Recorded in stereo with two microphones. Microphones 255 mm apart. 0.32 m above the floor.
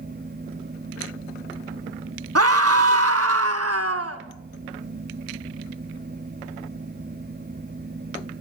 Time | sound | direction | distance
2.4 | a scream | 70° right (ahead or behind) | 3 m